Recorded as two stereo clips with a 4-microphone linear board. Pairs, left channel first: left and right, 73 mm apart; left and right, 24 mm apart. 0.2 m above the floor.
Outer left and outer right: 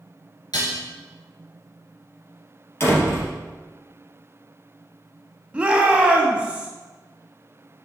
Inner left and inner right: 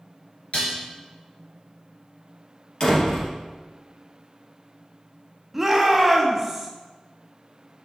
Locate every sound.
0.5 s dishes clattering: 70° left (ahead or behind), 2.5 m
2.8 s a door slam: 40° left (ahead or behind), 3 m
5.5 s a shout: 15° right (ahead or behind), 1.2 m